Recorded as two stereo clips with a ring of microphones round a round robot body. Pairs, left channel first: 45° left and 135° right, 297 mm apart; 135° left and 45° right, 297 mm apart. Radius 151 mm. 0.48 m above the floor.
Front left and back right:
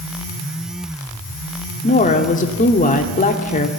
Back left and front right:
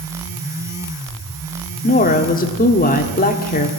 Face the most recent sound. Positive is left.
turn(degrees=90)